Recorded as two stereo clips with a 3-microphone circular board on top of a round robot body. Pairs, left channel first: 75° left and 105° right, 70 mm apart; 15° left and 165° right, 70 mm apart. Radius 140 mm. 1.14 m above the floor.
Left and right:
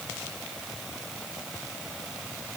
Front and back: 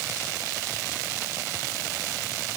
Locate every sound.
Only background noise.